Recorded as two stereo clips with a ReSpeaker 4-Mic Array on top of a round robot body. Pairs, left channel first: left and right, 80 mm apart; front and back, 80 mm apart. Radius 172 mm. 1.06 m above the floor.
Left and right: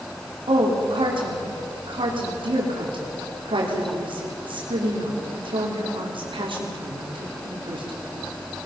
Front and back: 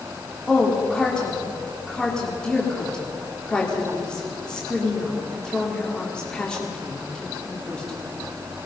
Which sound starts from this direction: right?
A woman speaking, at 0.5 s.